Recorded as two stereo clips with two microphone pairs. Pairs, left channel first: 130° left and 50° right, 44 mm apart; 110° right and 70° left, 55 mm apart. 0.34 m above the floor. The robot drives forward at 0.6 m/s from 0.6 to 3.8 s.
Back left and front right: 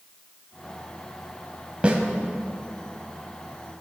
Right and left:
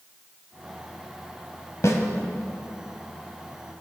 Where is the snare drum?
110° right, 1.7 m; by 2.0 s 115° right, 1.7 m.